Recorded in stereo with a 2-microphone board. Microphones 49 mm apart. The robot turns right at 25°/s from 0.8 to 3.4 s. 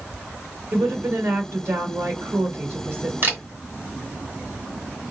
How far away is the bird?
I don't hear a bird.